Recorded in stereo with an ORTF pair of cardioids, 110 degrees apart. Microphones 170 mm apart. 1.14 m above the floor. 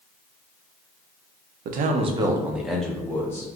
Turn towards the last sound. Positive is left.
turn(degrees=15)